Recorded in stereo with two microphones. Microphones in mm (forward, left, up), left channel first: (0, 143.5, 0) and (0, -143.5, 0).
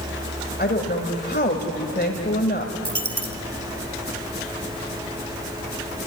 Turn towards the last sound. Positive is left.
turn(degrees=-75)  # may be behind; listen again after turning